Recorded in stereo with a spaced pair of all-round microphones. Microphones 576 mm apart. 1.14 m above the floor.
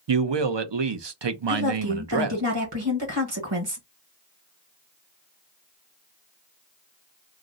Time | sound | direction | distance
0.1 | a man speaking | 50° right (ahead or behind) | 0.6 m
1.5 | a woman speaking | 40° right (ahead or behind) | 1.3 m